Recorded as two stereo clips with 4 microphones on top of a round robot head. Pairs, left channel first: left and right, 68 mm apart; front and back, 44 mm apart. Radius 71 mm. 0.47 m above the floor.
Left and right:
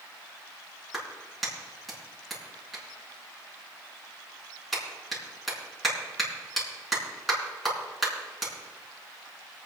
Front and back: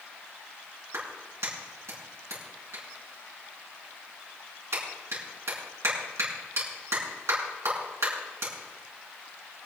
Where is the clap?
Straight behind, 5 m.